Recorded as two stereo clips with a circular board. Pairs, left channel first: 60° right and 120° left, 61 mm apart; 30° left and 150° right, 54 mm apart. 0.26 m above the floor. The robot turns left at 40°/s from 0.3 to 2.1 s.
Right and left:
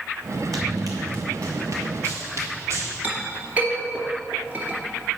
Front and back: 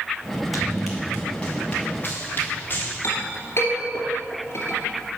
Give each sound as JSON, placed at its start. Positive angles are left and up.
{"t": 0.5, "sound": "running footsteps", "azimuth_deg": 125, "distance_m": 1.0}
{"t": 3.0, "sound": "a clink", "azimuth_deg": 55, "distance_m": 2.5}